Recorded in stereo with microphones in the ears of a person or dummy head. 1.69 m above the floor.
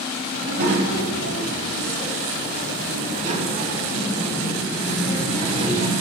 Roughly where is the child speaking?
Right.